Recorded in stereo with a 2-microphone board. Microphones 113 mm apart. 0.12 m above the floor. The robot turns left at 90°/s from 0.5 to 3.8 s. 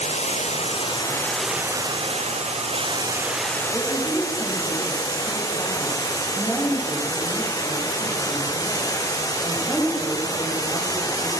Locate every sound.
0.0 s running water: 85° left, 2.5 m; by 11.4 s 145° left, 2.5 m
3.7 s a woman speaking: 10° right (ahead or behind), 6.5 m; by 11.3 s 5° right (ahead or behind), 6.5 m